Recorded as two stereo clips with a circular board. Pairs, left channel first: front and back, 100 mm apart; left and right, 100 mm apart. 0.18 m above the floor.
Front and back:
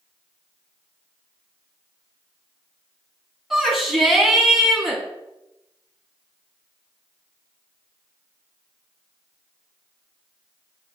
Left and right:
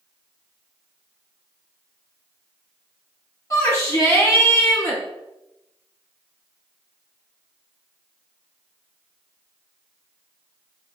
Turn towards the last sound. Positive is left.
turn(degrees=95)